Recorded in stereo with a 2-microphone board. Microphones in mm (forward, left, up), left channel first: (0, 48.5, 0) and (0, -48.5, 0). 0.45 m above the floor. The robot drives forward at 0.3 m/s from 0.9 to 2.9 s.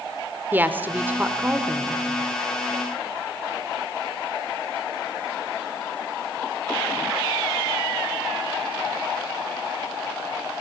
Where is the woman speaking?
20° right (ahead or behind), 1.4 m; by 2.0 s 15° right (ahead or behind), 1.6 m.